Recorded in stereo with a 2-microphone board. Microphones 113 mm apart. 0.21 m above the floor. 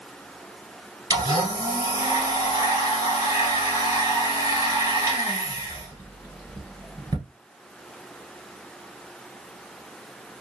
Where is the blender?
30° right (ahead or behind), 1.7 m.